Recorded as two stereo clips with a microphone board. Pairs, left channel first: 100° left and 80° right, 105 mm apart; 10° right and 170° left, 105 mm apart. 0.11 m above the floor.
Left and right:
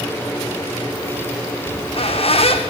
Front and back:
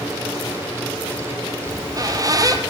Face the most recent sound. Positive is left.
turn(degrees=115)